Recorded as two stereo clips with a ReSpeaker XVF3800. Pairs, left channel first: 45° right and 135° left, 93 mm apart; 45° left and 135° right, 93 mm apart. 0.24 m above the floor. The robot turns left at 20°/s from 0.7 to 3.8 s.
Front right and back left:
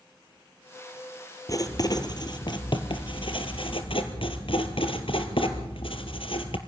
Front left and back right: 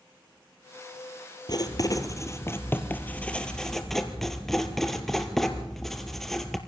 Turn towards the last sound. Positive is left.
turn(degrees=-40)